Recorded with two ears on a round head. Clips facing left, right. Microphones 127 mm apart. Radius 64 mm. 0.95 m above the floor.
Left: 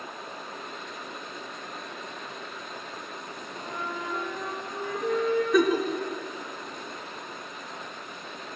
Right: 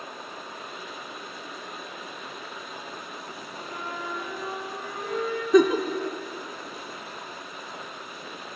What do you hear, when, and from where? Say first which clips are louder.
3.5 s a flute: left 1 dB; 65° left (ahead or behind), 6 m
5.5 s a giggle: right 6 dB; 20° right (ahead or behind), 0.8 m